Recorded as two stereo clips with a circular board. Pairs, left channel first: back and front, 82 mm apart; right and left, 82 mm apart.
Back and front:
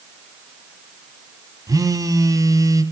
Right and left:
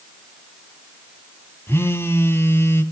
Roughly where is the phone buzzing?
Ahead right.